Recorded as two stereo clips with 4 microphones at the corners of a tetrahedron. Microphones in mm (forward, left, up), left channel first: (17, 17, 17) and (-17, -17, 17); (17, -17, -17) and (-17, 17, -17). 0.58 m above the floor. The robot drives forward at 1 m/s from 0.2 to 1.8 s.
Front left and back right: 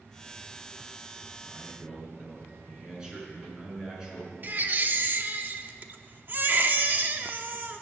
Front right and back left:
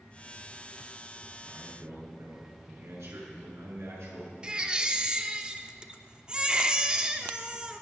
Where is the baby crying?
165° right, 0.9 m.